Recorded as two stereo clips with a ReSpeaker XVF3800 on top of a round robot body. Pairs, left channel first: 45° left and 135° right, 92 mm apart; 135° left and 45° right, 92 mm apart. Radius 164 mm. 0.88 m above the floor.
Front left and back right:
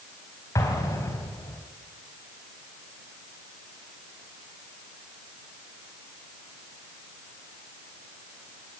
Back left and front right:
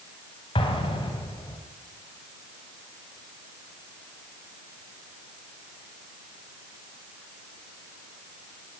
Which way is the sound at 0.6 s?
105° left.